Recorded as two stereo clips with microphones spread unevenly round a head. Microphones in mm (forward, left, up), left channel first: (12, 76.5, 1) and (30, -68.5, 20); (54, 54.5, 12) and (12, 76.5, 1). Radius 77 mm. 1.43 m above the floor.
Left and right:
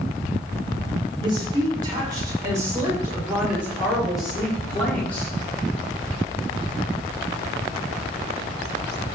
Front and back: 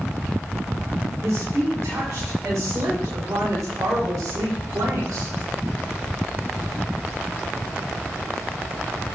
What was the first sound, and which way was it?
A woman speaking, 145° right.